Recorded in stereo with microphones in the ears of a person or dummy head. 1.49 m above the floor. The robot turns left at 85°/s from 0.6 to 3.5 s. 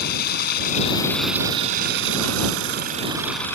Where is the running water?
55° left; by 3.6 s 170° left.